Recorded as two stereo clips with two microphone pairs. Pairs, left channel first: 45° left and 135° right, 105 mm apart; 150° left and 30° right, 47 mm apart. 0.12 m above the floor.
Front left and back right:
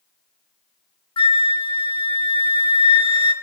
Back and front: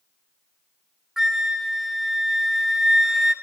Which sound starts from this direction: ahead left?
A flute, at 1.2 s.